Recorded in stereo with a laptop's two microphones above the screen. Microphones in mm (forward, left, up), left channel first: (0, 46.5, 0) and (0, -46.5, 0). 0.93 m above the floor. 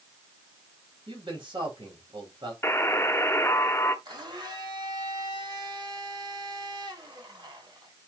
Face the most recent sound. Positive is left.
turn(degrees=-50)  # may be behind; listen again after turning